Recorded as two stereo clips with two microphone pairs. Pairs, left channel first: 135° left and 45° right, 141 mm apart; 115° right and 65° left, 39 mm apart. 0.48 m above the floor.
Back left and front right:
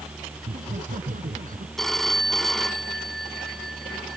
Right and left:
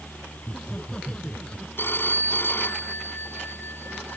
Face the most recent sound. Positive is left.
turn(degrees=-135)